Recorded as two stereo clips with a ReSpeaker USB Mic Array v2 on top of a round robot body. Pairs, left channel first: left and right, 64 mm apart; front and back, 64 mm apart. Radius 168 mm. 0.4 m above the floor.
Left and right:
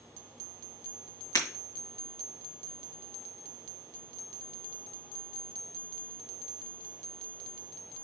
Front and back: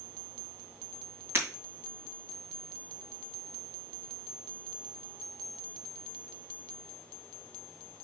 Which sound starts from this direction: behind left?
Breaking glass, at 1.4 s.